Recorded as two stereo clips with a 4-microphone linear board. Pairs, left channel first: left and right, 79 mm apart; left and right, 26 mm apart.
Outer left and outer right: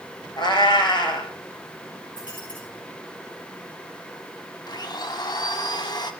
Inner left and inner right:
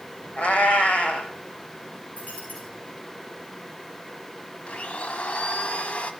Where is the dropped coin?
65° left (ahead or behind), 5.5 m.